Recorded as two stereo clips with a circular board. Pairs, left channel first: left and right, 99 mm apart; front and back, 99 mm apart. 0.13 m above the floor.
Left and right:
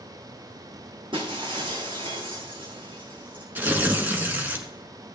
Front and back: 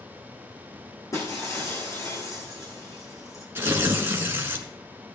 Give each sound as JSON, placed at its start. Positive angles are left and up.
{"t": 1.1, "sound": "breaking glass", "azimuth_deg": -60, "distance_m": 4.0}
{"t": 3.5, "sound": "tearing paper", "azimuth_deg": -140, "distance_m": 1.6}